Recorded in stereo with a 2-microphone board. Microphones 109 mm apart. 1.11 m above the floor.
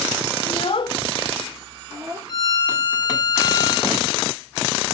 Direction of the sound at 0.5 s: 70° left (ahead or behind).